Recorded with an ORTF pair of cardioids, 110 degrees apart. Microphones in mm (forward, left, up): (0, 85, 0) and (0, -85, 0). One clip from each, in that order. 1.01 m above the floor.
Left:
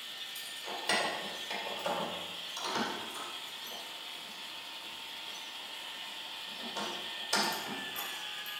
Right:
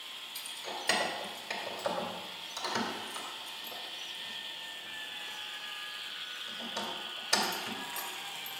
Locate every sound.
0.3 s keys jangling: 20° right, 2.5 m